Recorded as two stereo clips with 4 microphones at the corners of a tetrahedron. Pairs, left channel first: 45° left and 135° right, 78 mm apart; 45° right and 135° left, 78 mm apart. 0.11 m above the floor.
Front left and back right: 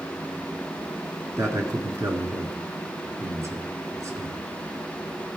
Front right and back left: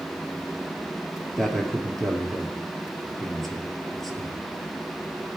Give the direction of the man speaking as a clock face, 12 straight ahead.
4 o'clock.